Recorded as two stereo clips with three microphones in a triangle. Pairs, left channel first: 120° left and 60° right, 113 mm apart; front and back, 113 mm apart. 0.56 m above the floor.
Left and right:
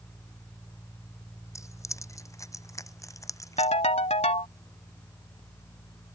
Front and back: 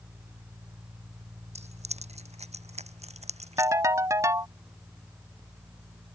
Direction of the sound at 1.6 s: Straight behind.